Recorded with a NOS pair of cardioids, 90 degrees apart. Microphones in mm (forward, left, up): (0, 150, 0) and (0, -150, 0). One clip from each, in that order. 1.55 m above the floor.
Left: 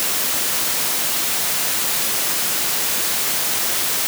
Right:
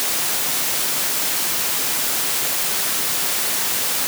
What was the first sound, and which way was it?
Only background noise.